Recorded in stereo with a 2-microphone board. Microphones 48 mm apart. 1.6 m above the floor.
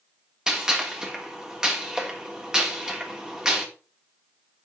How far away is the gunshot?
About 3 m.